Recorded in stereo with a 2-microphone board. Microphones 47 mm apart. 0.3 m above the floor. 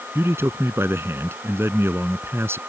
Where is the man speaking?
60° right (ahead or behind).